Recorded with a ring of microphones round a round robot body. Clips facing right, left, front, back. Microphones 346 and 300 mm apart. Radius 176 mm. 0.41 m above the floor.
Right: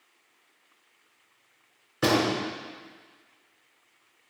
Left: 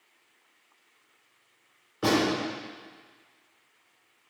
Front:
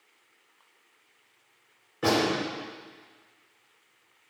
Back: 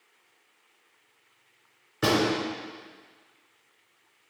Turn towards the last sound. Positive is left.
turn(degrees=-135)